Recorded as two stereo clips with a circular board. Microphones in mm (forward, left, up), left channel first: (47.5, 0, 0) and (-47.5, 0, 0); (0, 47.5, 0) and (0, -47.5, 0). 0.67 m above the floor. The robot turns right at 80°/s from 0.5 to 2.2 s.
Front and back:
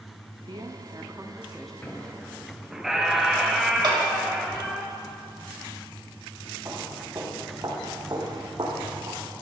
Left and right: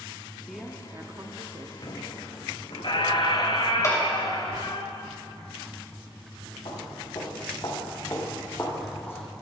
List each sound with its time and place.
0.5 s a woman speaking: straight behind, 0.8 m; by 1.7 s 85° right, 0.8 m
1.8 s a squeak: 65° left, 1.1 m; by 4.8 s 95° left, 1.1 m
3.8 s a clap: 145° left, 2.5 m
6.7 s footsteps: 125° left, 3 m; by 9.2 s 160° left, 2 m